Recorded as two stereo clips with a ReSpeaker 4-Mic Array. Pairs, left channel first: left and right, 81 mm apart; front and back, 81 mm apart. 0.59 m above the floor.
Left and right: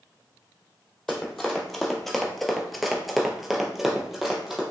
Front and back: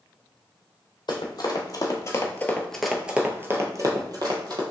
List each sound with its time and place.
1.1 s running footsteps: 5° left, 1.0 m; by 4.6 s 175° right, 1.0 m